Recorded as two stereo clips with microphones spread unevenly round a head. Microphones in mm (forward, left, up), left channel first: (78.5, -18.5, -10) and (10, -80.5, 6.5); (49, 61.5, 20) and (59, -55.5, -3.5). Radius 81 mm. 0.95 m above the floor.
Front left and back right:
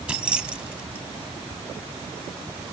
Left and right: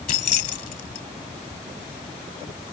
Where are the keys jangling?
140° left.